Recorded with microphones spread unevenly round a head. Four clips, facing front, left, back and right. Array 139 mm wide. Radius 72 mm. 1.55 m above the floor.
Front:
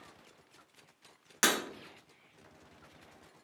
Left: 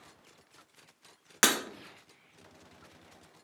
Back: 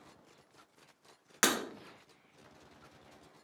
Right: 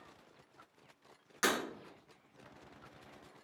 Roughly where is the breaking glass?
Behind left.